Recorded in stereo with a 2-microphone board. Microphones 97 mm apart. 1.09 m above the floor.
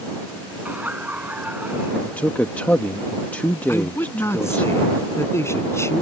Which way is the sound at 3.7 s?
25° left (ahead or behind).